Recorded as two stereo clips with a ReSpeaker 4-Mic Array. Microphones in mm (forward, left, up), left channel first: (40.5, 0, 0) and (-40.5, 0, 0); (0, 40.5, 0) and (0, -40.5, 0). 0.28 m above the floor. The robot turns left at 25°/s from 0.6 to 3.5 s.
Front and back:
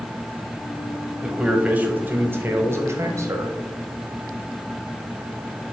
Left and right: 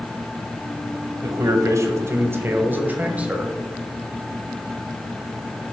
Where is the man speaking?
105° right, 1.1 m; by 3.5 s 160° right, 1.1 m.